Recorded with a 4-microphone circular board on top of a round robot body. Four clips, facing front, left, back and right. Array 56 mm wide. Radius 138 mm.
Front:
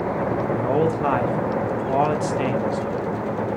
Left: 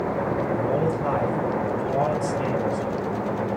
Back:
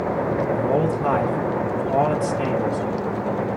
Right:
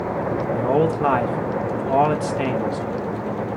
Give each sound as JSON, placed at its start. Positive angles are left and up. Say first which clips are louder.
{"t": 0.5, "sound": "a man speaking", "louder": "right 8 dB, front 2 dB", "azimuth_deg": -70, "distance_m": 1.4}